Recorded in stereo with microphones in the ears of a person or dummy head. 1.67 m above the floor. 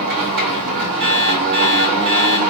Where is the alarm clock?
35° right (ahead or behind), 2.5 m.